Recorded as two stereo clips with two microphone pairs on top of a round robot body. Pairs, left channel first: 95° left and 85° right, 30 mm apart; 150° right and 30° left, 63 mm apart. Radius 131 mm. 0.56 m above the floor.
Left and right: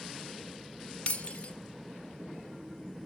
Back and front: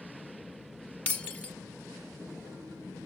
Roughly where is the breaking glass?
Behind left.